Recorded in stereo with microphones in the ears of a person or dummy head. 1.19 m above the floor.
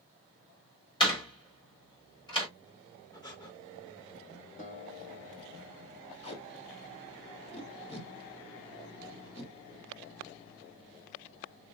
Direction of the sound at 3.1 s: 20° left (ahead or behind).